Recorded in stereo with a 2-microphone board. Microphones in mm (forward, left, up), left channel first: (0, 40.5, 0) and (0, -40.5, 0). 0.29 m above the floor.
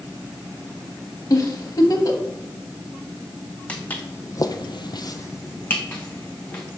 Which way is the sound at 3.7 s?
20° left (ahead or behind).